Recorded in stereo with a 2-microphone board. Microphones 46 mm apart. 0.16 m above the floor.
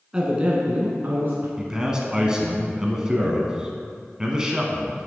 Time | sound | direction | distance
0.1 | a man speaking | 15° right (ahead or behind) | 1.5 m
1.6 | a man speaking | 15° right (ahead or behind) | 1.3 m